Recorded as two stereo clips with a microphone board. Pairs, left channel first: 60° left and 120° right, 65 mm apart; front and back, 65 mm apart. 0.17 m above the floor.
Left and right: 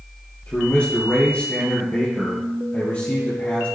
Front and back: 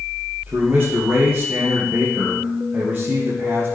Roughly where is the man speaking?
Behind left.